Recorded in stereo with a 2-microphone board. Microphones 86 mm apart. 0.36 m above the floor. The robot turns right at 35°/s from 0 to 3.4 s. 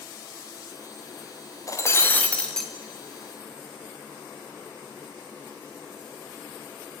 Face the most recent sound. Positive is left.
turn(degrees=-160)